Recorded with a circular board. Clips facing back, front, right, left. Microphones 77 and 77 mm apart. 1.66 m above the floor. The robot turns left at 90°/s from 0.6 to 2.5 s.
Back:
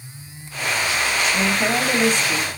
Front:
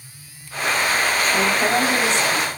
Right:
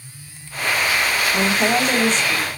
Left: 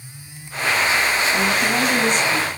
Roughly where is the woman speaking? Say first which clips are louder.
Front 2 dB, right 1 dB; right.